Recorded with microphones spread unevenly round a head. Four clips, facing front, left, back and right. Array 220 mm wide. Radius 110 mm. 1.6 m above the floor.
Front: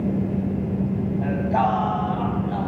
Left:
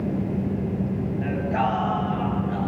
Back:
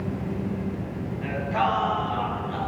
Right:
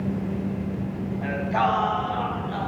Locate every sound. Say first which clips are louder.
1.2 s singing: right 2 dB, front 3 dB; 10° left, 3.5 m